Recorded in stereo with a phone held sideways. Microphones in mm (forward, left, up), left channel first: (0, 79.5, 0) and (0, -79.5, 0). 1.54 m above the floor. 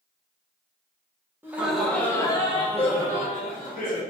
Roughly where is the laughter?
Centre.